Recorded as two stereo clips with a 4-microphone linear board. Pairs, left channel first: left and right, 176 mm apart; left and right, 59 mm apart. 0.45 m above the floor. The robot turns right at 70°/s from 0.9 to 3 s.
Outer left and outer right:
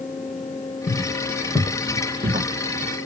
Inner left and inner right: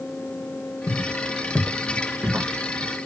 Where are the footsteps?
75° left (ahead or behind), 1.7 m; by 2.5 s 60° right (ahead or behind), 2.5 m.